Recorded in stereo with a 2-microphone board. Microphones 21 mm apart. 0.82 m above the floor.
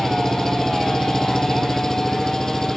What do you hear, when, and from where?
0.0 s an engine running: 25° left (ahead or behind)